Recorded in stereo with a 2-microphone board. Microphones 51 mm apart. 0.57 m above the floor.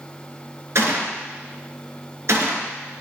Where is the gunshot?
65° right (ahead or behind), 2 m.